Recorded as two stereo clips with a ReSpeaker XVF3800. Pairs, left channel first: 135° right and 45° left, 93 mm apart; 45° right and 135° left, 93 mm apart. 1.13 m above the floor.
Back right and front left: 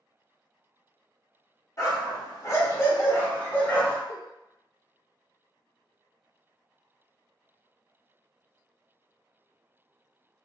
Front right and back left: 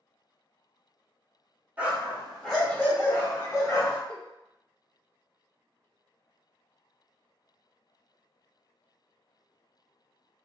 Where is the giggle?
20° right, 1.0 m.